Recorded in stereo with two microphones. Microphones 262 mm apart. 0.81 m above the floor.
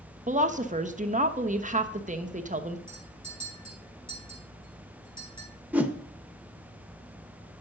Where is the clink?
85° left, 4.5 m.